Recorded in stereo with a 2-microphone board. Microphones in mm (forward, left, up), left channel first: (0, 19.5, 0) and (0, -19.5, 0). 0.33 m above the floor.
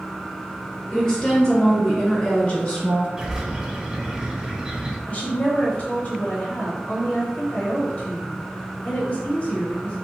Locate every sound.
0.9 s a woman speaking: 15° left (ahead or behind), 1.1 m; by 3.1 s 30° left (ahead or behind), 1.1 m
3.2 s a bird: 15° right (ahead or behind), 0.5 m
5.1 s a woman speaking: 40° left (ahead or behind), 1.2 m